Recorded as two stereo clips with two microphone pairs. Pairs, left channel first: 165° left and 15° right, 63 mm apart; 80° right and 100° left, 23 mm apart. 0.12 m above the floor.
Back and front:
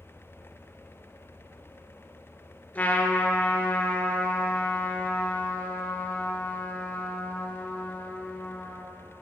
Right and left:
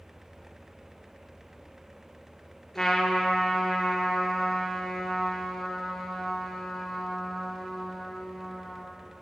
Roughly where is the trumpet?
Behind right.